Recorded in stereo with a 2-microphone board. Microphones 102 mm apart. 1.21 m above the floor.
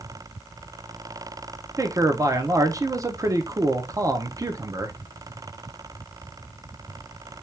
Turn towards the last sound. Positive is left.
turn(degrees=-35)  # may be behind; listen again after turning